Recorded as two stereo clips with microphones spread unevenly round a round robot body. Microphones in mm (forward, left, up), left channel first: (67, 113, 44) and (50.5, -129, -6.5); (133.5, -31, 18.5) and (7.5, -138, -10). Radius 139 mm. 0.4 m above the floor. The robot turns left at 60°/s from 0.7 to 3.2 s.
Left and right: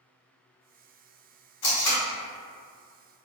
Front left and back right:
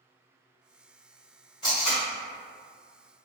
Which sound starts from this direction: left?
Tape being pulled, at 1.6 s.